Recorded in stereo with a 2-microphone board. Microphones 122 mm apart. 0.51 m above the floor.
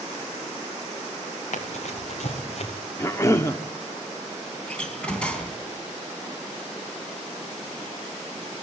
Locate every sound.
1.5 s running footsteps: 70° left (ahead or behind), 4 m; by 2.8 s 60° left (ahead or behind), 3.5 m
3.0 s a cough: 25° left (ahead or behind), 1.1 m
4.7 s a door slam: 10° left (ahead or behind), 4 m